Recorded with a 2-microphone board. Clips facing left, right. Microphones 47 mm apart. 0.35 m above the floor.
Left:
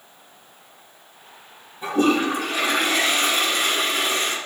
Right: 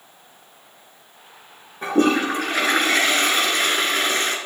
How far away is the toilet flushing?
About 2.5 m.